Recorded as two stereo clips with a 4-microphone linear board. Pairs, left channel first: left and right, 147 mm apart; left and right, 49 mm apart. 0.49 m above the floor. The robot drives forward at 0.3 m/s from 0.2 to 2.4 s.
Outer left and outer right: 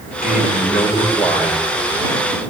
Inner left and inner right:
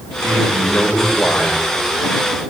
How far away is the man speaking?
About 5 m.